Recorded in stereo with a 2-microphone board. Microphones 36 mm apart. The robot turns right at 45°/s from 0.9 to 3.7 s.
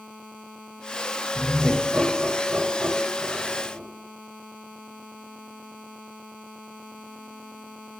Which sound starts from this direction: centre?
Laughter, at 1.4 s.